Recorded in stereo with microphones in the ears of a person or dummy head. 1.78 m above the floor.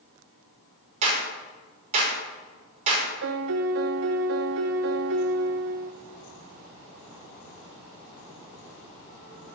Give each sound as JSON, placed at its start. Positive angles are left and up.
{"t": 1.0, "sound": "a clap", "side_deg": -40, "distance_m": 5.5}
{"t": 3.2, "sound": "a piano", "side_deg": -60, "distance_m": 1.1}